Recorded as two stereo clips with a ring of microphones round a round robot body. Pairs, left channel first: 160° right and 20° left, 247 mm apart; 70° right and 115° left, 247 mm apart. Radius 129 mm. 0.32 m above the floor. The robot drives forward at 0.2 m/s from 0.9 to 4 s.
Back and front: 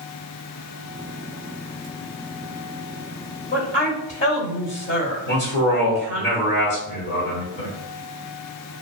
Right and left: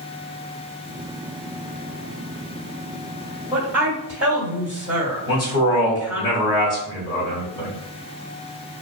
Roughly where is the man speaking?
Behind right.